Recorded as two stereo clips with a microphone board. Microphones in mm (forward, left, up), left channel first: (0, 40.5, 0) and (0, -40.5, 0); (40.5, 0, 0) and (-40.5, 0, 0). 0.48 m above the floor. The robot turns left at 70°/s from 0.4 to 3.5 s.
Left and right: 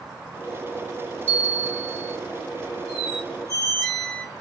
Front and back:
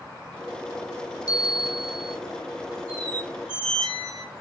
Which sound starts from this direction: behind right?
A squeak, at 2.9 s.